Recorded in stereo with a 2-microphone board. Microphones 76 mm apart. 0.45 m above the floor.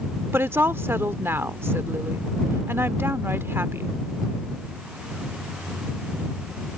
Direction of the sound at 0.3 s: 35° right (ahead or behind).